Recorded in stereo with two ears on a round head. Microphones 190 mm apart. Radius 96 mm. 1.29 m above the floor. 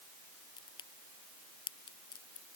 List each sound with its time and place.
0.6 s a crack: 20° left (ahead or behind)